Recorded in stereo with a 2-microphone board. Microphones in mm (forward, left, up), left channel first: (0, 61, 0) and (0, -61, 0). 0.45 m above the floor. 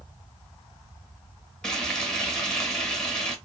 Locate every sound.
1.6 s frying: 5° left (ahead or behind), 1.0 m